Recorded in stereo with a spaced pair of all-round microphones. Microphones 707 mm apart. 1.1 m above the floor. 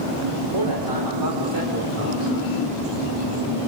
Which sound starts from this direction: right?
A man speaking, at 0.5 s.